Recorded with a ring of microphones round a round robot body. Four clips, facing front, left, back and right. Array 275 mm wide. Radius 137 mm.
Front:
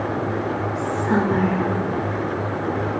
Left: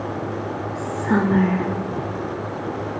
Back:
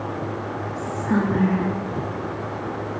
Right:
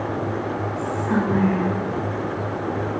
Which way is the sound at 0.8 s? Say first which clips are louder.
Left 3 dB, front 1 dB; 75° left.